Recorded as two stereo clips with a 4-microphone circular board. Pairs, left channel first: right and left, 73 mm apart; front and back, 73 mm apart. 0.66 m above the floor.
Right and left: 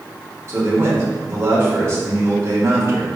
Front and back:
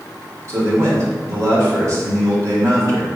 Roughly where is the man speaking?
Behind left.